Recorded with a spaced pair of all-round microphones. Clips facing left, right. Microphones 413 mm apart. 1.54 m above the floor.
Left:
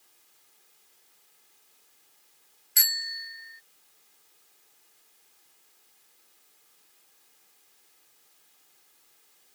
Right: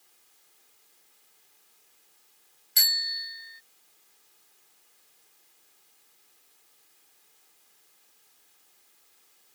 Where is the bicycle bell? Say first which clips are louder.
Right 1 dB; 55° right (ahead or behind).